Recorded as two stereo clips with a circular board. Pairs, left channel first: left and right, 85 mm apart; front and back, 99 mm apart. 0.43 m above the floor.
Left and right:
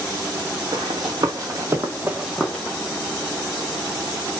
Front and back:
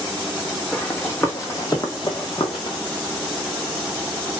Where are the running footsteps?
75° right, 1.0 m; by 2.8 s 15° left, 0.7 m.